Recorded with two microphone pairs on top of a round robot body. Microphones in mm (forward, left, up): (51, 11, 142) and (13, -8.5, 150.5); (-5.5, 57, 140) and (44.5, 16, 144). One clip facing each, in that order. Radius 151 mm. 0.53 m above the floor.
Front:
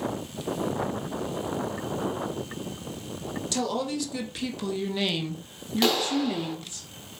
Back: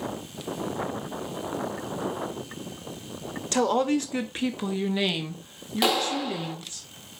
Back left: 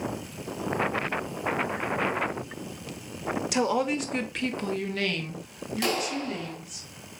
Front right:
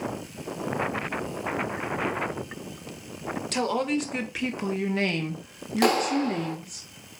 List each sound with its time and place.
3.5 s a woman speaking: 150° right, 1.5 m; by 6.8 s 35° right, 1.9 m
5.8 s a clap: 70° right, 1.5 m